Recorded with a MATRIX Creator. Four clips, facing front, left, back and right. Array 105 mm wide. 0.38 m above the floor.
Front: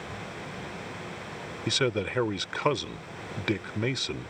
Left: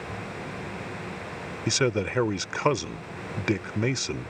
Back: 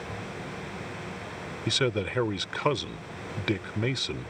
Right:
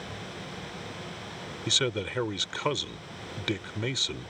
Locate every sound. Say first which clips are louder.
1.7 s a man speaking: left 6 dB, even; 85° left